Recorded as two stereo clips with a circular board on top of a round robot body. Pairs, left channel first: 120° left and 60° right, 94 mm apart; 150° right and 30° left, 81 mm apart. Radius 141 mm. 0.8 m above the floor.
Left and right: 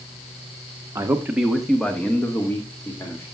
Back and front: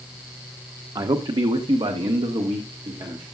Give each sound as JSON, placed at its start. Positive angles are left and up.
{"t": 0.9, "sound": "a man speaking", "azimuth_deg": 0, "distance_m": 1.1}